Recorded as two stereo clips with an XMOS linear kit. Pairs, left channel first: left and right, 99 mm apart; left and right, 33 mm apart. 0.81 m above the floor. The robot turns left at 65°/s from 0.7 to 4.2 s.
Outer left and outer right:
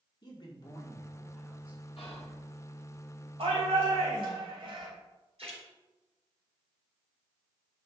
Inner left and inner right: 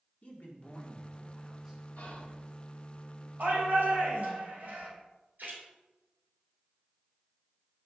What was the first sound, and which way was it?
A man speaking, 50° left.